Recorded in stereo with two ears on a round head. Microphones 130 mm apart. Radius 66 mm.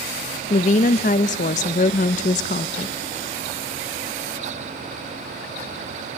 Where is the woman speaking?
50° left (ahead or behind), 0.5 m.